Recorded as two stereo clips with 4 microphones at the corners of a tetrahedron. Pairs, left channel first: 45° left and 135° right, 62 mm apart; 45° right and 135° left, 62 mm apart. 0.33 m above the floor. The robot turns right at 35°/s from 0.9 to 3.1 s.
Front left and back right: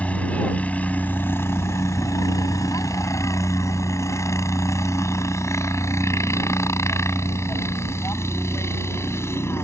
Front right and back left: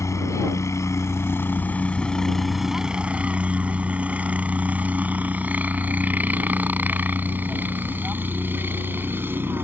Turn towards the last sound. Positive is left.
turn(degrees=85)